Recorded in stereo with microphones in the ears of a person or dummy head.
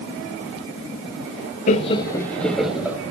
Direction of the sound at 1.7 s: 35° left (ahead or behind).